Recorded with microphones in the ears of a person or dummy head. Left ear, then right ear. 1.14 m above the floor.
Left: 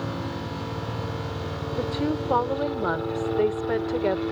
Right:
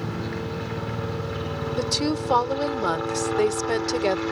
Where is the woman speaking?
75° right (ahead or behind).